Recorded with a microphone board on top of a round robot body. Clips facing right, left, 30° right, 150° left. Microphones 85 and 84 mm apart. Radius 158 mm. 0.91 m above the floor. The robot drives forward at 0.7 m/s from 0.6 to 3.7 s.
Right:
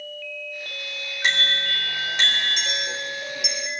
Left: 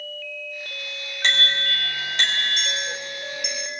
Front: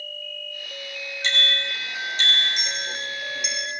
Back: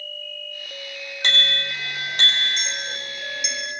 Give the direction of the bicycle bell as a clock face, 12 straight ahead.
6 o'clock.